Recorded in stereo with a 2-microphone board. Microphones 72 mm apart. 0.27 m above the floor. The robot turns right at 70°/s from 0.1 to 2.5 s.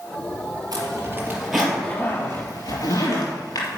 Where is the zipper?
60° right (ahead or behind), 3.5 m; by 3.8 s 65° left (ahead or behind), 3.5 m.